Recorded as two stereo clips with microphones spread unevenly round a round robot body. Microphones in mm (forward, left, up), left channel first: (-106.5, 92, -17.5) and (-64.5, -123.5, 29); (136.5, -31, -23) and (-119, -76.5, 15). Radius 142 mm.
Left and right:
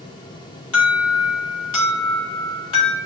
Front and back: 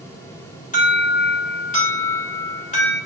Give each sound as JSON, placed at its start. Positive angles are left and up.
{"t": 0.7, "sound": "an alarm", "azimuth_deg": 75, "distance_m": 3.0}